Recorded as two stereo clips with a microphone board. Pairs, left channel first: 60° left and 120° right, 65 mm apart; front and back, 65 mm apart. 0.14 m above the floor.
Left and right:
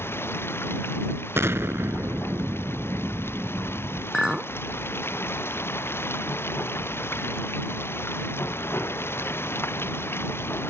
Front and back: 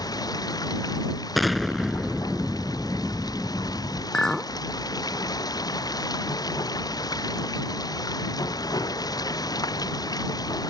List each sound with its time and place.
0.0 s running water: 5° left
1.4 s an explosion: 90° right
4.1 s a clink: 50° right